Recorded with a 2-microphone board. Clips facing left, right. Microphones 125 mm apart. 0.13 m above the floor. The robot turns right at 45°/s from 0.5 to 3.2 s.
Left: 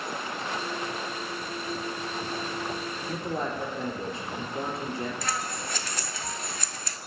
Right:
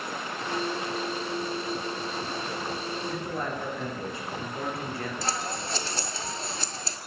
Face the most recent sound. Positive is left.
turn(degrees=-30)  # may be behind; listen again after turning